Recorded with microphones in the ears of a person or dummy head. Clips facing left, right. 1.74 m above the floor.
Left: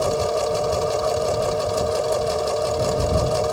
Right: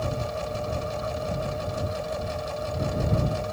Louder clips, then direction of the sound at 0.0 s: Left 9 dB; 80° left.